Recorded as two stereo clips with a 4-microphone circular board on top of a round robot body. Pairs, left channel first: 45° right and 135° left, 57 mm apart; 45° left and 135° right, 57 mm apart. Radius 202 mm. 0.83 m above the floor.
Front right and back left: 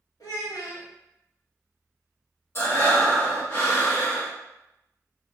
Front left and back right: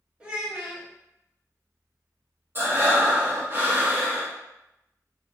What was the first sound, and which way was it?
A child speaking, 65° right.